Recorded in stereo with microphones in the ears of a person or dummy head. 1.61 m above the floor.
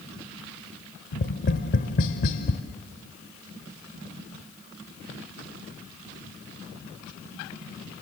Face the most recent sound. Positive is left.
turn(degrees=45)  # may be behind; listen again after turning